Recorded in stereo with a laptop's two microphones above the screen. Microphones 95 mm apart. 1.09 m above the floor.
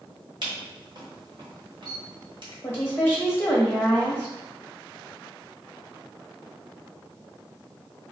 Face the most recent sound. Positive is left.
turn(degrees=25)  # may be behind; listen again after turning